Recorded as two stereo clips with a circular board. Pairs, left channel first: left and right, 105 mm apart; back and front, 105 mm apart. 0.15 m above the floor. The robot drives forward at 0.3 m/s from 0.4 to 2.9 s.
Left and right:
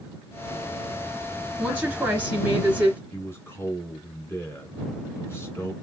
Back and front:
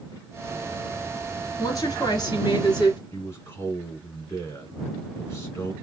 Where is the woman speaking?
150° right, 2 m; by 3.0 s 160° right, 2.5 m.